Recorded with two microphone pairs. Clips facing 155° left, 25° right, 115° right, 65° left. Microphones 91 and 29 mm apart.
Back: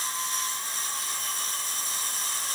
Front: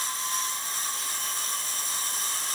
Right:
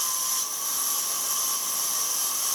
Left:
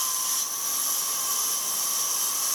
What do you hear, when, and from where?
Only background noise.